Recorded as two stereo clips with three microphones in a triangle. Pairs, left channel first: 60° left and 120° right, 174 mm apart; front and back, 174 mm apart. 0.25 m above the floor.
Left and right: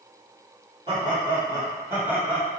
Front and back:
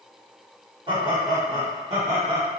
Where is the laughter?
145° right, 1.8 m; by 2.5 s 160° left, 1.9 m.